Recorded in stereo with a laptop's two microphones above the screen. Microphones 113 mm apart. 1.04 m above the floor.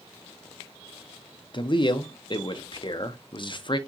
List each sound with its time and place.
1.5 s a man speaking: 45° left (ahead or behind), 0.7 m